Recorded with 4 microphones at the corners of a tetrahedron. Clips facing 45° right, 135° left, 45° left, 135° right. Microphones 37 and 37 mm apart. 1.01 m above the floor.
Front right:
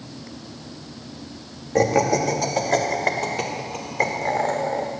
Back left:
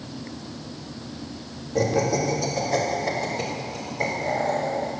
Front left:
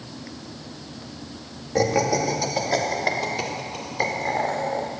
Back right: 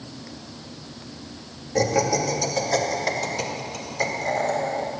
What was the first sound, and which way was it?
Laughter, 35° right.